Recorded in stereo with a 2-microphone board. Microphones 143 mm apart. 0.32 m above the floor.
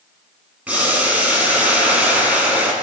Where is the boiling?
10° right (ahead or behind), 2 m.